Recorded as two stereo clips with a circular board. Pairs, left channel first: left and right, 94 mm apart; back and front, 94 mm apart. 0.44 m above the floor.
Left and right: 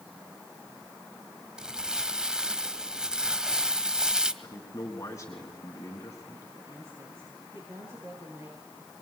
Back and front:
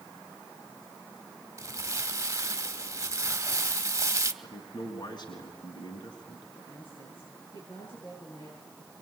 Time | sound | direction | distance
1.6 | crumpling | 15° right | 1.4 m
4.4 | a man speaking | 145° left | 4 m
6.5 | a woman speaking | 155° right | 9.5 m